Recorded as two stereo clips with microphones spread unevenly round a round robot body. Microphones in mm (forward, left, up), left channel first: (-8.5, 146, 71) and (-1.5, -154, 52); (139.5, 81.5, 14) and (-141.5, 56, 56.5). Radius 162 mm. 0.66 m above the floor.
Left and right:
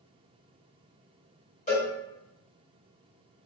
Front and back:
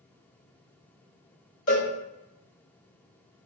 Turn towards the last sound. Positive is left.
turn(degrees=25)